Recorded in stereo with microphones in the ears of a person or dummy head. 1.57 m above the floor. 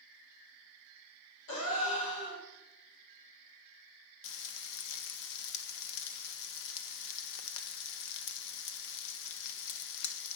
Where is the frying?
60° left (ahead or behind), 0.6 m.